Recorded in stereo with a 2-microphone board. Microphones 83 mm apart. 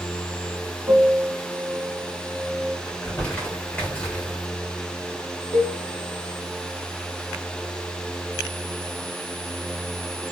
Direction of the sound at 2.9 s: 15° left (ahead or behind).